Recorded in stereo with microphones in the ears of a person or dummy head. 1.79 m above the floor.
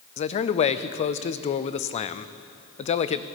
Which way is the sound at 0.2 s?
40° left (ahead or behind).